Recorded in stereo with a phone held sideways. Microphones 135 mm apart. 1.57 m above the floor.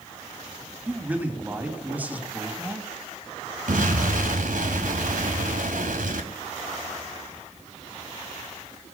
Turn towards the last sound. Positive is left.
turn(degrees=-85)